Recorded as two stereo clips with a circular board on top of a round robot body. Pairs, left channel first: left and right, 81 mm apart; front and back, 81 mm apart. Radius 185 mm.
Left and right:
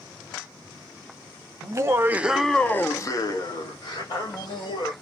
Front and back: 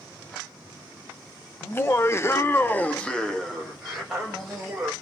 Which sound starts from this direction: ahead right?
Laughter, at 1.6 s.